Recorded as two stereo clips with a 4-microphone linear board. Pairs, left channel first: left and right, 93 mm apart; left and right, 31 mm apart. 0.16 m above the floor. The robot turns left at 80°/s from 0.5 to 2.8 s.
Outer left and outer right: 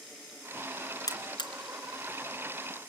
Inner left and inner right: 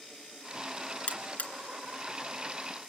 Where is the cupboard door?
No cupboard door in this recording.